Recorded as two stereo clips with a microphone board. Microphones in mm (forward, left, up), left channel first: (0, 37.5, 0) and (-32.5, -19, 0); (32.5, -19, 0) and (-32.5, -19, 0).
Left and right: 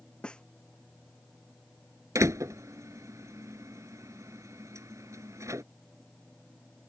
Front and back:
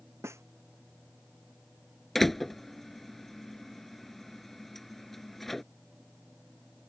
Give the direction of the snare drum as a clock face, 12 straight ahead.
7 o'clock.